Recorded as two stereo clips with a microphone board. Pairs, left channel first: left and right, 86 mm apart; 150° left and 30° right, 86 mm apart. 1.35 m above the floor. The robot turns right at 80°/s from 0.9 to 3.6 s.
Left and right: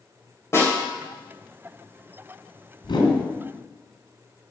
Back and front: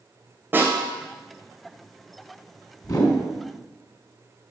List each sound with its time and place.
0.5 s a snare drum: 35° left, 3 m
2.8 s a whoosh: 105° left, 3 m; by 3.2 s 130° left, 3 m